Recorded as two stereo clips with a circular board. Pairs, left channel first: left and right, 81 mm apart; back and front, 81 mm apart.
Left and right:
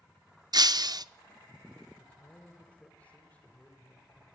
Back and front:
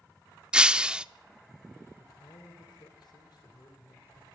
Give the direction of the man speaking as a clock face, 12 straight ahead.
7 o'clock.